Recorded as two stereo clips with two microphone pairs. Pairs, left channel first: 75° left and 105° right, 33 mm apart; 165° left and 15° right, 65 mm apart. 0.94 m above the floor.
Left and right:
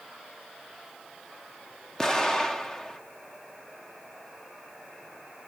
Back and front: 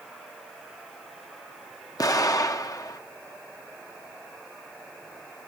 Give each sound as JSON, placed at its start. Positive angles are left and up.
{"t": 2.0, "sound": "an explosion", "azimuth_deg": 145, "distance_m": 0.7}